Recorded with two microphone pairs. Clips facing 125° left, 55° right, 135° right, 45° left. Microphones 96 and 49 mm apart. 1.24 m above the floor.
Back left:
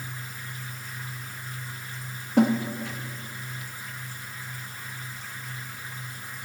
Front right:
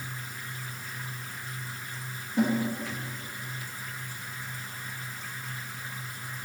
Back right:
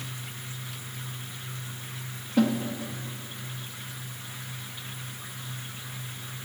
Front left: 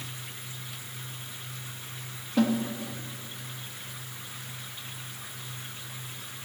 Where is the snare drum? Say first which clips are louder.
Back left 5 dB, back right 1 dB; 135° left, 1.2 m.